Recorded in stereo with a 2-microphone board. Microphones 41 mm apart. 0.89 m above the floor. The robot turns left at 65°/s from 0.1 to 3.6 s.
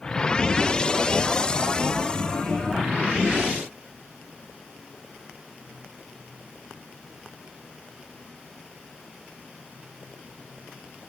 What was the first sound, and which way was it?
Only background noise.